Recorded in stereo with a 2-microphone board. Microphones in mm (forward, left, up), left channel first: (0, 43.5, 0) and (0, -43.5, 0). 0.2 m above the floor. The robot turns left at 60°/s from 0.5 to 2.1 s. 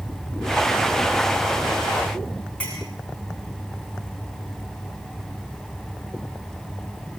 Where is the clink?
15° left (ahead or behind), 8.5 m.